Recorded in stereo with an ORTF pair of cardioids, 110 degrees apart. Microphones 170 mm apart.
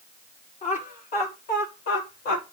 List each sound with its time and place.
0.6 s laughter: 50° left, 5 m; by 2.5 s 65° left, 4.5 m